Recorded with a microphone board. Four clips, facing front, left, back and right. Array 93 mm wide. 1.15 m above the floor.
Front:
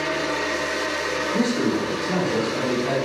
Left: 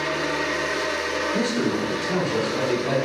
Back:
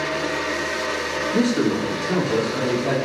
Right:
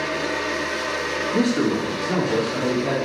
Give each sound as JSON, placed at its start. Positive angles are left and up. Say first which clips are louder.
{"t": 1.3, "sound": "a man speaking", "louder": "right 5 dB, back 3 dB", "azimuth_deg": -135, "distance_m": 1.6}